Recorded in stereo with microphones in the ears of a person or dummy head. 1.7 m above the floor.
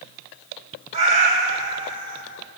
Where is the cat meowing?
30° right (ahead or behind), 2.5 m; by 2.2 s 40° right (ahead or behind), 3.5 m.